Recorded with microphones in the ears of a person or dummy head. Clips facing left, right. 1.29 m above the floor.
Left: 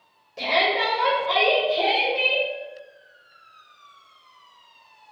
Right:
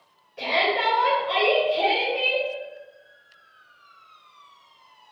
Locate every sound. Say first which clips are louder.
0.4 s a shout: left 1 dB; 55° left (ahead or behind), 1.2 m